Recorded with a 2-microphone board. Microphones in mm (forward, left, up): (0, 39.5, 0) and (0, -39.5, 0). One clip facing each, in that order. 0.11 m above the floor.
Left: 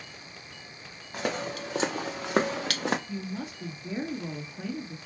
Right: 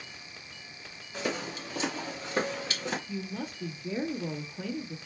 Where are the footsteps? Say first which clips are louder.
Left 2 dB; 65° left (ahead or behind), 1.5 m; by 3.0 s 60° left (ahead or behind), 0.8 m.